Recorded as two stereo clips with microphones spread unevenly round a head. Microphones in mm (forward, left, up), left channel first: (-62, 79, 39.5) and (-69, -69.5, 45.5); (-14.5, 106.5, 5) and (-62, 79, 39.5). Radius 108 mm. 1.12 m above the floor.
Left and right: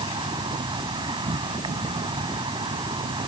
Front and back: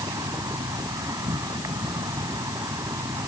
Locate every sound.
0.0 s an insect: 150° right